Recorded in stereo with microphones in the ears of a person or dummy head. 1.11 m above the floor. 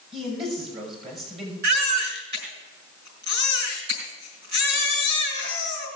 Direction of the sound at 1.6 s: 60° right (ahead or behind).